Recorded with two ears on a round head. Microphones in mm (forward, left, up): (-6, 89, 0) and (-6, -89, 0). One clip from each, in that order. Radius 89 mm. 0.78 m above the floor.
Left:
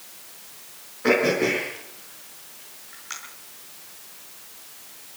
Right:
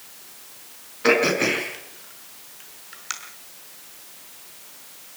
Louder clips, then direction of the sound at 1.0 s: Right 2 dB; 65° right (ahead or behind).